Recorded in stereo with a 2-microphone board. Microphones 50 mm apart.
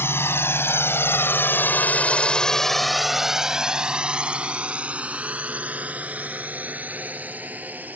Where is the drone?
50° left (ahead or behind); by 8.0 s 30° right (ahead or behind).